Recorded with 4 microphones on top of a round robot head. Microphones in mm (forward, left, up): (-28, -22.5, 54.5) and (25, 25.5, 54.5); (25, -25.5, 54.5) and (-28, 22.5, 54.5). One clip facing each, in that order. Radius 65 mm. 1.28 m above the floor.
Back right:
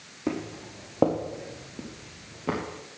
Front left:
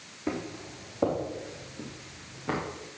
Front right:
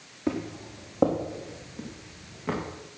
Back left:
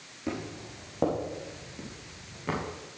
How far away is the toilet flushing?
No toilet flushing in this recording.